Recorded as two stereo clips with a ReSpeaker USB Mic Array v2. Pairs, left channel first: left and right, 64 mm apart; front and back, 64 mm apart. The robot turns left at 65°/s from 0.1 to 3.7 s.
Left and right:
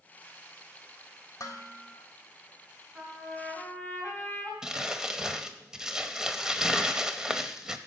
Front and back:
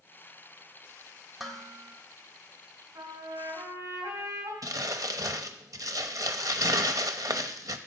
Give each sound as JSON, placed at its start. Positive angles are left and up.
{"t": 1.4, "sound": "dishes clattering", "azimuth_deg": 95, "distance_m": 1.1}
{"t": 3.0, "sound": "a trumpet", "azimuth_deg": -150, "distance_m": 3.0}
{"t": 4.6, "sound": "crumpling", "azimuth_deg": -170, "distance_m": 0.7}